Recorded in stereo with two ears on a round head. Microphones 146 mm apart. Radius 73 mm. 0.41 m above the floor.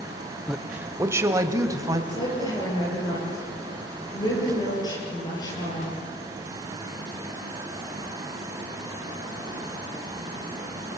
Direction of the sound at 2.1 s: 25° left (ahead or behind).